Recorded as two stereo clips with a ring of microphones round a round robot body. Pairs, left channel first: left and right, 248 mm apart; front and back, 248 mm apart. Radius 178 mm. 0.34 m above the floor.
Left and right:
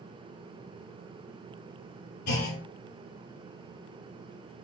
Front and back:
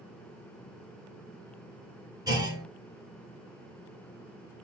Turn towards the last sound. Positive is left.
turn(degrees=105)